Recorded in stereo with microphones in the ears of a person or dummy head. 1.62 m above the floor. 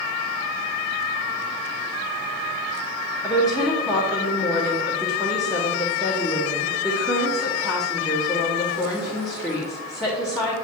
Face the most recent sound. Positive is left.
turn(degrees=0)  # may be behind; listen again after turning